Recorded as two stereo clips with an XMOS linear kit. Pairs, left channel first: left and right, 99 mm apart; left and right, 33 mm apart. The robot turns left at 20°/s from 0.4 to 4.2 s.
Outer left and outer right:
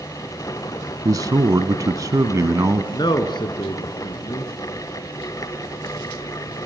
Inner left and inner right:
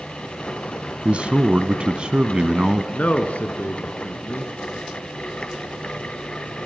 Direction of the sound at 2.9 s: 50° left (ahead or behind).